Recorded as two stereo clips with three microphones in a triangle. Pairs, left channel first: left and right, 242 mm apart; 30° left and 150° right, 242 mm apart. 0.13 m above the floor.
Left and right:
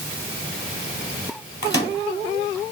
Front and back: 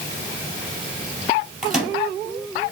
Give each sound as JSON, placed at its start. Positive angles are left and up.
{"t": 1.6, "sound": "a microwave", "azimuth_deg": 120, "distance_m": 2.5}